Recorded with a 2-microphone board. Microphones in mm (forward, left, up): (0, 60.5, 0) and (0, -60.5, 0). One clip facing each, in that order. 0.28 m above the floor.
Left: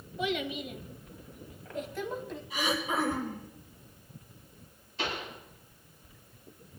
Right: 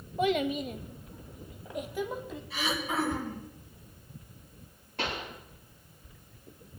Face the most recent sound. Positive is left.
turn(degrees=-60)  # may be behind; listen again after turning